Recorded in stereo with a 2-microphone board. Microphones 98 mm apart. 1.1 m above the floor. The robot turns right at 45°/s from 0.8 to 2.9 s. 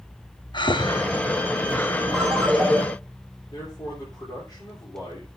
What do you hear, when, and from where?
0.5 s breathing: 50° left (ahead or behind), 0.9 m; by 2.1 s 20° left (ahead or behind), 0.9 m
2.1 s a ringtone: 10° right, 3 m; by 2.8 s 20° left, 3 m
3.5 s a man speaking: 45° left (ahead or behind), 3.5 m